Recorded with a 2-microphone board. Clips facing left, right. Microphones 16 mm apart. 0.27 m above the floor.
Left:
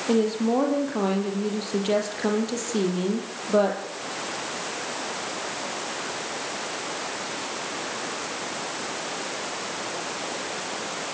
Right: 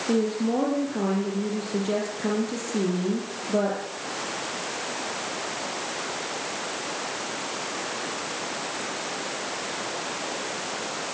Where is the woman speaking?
30° left (ahead or behind), 7 m.